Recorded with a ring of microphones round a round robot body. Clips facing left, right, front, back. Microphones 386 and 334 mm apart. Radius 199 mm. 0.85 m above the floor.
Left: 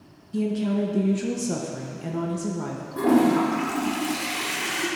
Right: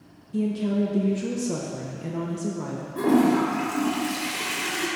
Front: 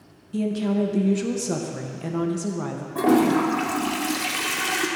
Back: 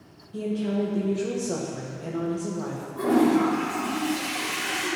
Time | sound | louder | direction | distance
0.3 | a woman speaking | even, front 3 dB | 10° left | 0.9 m
3.0 | a toilet flushing | left 1 dB, front 1 dB | straight ahead | 1.1 m